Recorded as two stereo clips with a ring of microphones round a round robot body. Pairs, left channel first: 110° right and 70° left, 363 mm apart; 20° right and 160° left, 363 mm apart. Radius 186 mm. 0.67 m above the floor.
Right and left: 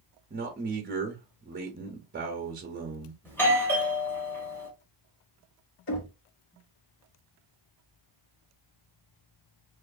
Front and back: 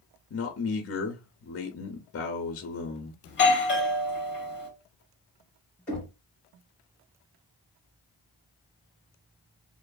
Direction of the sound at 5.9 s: 110° right.